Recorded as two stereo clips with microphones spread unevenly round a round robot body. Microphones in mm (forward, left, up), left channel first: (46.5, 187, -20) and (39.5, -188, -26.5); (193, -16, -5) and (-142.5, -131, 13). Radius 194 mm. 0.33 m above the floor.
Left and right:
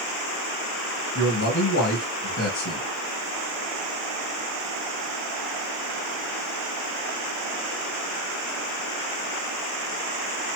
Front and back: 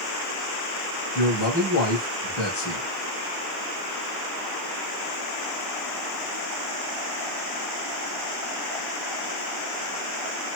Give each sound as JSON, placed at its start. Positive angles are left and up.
{"t": 1.1, "sound": "a man speaking", "azimuth_deg": 40, "distance_m": 1.9}